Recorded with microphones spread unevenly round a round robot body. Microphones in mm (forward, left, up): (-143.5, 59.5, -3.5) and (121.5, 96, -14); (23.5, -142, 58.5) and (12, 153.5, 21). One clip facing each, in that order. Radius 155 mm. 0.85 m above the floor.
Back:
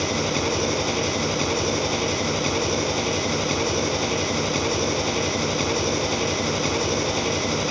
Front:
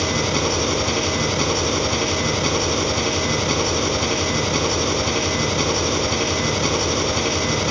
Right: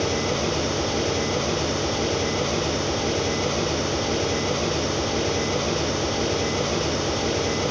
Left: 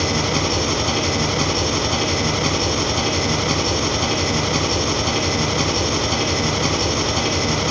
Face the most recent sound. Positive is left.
turn(degrees=80)